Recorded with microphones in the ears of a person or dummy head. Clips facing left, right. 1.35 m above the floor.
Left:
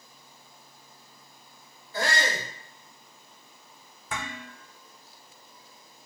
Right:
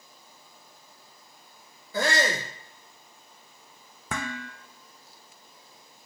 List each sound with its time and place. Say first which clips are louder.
1.9 s a shout: right 3 dB; 70° right (ahead or behind), 0.9 m
4.1 s dishes clattering: right 3 dB; 40° right (ahead or behind), 0.6 m